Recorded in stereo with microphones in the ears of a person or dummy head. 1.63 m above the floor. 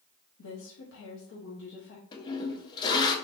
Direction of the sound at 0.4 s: 75° left (ahead or behind).